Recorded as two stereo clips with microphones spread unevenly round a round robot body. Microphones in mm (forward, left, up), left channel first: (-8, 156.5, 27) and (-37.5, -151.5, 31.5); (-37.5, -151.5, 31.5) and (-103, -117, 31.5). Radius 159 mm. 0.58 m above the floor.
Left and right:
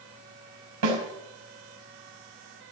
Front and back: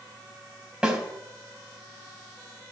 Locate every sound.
0.8 s a snare drum: 130° right, 5 m